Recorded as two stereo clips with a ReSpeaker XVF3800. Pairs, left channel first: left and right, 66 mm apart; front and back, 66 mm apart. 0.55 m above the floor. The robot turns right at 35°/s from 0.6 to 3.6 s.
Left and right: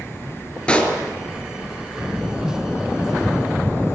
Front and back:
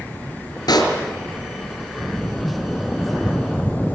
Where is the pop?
15° left, 3.5 m; by 0.9 s 25° left, 3.5 m.